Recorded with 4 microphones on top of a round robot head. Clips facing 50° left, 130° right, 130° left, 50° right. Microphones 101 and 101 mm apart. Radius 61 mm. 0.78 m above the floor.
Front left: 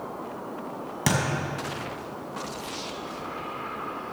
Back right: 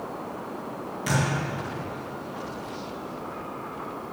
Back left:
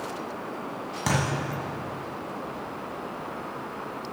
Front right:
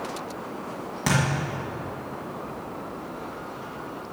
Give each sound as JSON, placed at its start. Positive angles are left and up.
{"t": 1.1, "sound": "a thud", "azimuth_deg": 45, "distance_m": 1.6}